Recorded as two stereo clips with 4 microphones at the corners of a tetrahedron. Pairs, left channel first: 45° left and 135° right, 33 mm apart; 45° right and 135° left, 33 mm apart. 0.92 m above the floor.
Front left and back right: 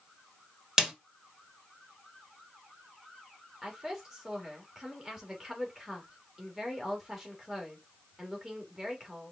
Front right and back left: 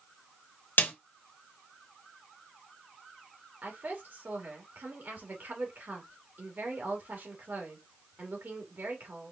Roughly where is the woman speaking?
Behind left.